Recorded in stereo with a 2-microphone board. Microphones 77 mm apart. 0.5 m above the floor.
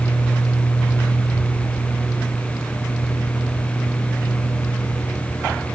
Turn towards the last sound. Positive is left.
No sound to turn to.